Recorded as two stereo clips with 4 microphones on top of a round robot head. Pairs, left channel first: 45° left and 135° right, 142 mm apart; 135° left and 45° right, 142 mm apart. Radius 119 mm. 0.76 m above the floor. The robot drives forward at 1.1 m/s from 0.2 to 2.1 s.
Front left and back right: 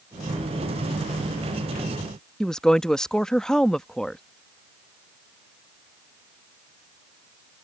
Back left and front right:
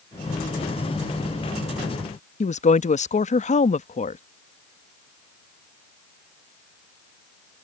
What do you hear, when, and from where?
2.4 s a woman speaking: 135° left